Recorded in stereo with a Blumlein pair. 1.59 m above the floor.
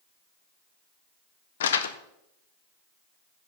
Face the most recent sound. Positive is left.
turn(degrees=60)